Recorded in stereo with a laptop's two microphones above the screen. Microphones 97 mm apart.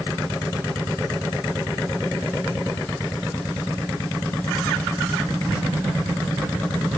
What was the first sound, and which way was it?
Only background noise.